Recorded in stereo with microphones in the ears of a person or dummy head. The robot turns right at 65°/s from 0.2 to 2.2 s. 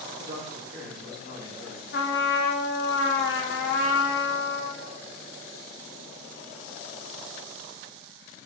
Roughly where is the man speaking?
Ahead right.